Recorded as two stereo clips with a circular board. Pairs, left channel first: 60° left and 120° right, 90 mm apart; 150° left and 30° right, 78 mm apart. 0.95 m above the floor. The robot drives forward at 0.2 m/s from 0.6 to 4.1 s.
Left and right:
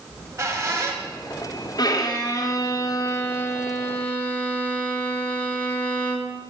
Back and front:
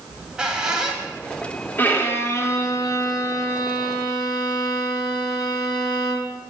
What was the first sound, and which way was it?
A squeak, 100° right.